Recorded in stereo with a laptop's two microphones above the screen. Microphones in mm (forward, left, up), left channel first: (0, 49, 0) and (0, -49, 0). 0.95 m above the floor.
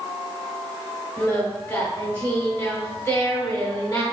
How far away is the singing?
About 2.5 m.